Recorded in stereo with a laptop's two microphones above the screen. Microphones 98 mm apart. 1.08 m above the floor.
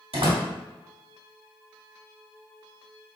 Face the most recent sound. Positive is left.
turn(degrees=-80)